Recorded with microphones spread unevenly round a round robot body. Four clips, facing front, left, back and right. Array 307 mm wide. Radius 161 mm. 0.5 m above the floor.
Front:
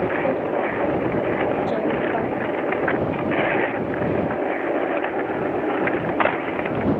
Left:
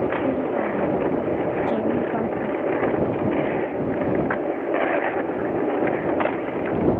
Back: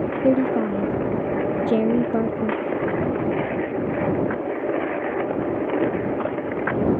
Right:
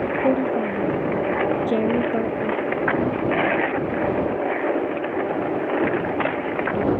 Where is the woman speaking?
165° right.